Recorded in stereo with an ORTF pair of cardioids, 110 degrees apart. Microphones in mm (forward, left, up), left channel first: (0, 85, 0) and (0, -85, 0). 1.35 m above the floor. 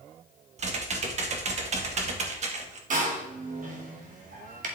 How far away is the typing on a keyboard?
About 1.7 m.